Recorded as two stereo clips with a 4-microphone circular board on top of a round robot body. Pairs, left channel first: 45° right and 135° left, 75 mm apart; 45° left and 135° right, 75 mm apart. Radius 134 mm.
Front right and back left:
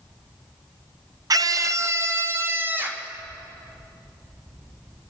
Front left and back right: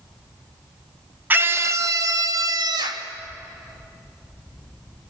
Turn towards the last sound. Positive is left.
turn(degrees=-155)